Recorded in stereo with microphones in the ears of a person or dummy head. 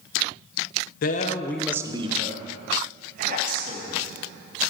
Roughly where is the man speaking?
Left.